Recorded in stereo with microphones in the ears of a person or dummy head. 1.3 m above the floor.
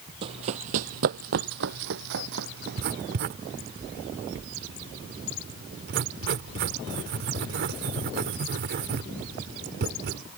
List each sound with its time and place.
0.2 s running footsteps: 30° right (ahead or behind); by 3.2 s 70° right (ahead or behind)
2.6 s writing: 60° right (ahead or behind)